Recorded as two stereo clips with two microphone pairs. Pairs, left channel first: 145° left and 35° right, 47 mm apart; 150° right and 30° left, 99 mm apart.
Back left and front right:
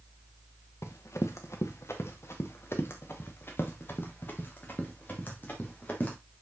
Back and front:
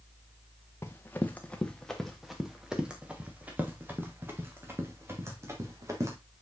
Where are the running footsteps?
145° left, 1.6 m; by 6.2 s 90° left, 4 m.